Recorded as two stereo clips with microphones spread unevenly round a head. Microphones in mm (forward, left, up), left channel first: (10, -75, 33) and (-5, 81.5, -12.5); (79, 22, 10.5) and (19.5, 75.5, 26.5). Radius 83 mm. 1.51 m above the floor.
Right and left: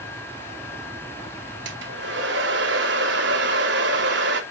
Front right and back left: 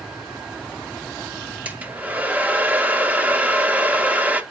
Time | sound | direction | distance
1.6 | a hair dryer | 70° left | 1.9 m